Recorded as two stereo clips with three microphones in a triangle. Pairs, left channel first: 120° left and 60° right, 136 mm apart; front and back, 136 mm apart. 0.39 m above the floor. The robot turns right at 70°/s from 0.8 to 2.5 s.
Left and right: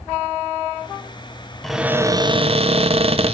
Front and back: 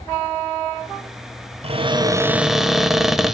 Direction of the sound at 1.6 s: 155° right.